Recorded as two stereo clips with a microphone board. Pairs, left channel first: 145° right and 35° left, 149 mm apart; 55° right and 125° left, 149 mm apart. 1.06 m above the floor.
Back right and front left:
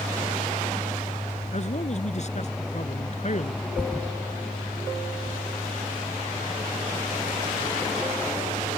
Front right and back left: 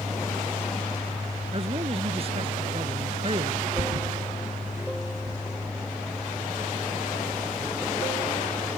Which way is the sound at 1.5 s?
175° left.